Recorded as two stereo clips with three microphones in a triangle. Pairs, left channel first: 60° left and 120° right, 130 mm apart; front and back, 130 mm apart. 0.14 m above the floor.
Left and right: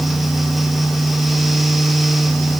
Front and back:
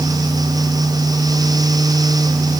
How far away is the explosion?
No explosion in this recording.